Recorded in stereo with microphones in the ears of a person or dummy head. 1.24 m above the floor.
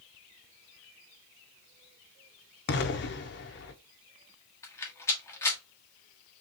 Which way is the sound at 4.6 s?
15° left (ahead or behind).